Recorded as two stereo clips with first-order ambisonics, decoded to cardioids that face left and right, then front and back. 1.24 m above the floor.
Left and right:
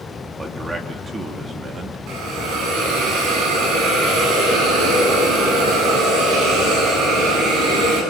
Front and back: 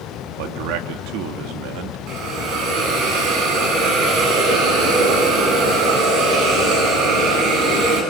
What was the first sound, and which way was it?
A man speaking, 170° right.